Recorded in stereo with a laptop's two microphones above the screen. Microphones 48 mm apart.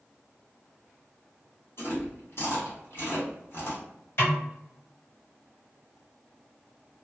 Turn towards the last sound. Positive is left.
turn(degrees=55)  # may be behind; listen again after turning